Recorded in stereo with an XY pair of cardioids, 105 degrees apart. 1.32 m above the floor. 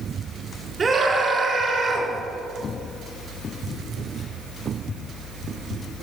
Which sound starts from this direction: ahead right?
A scream, at 0.8 s.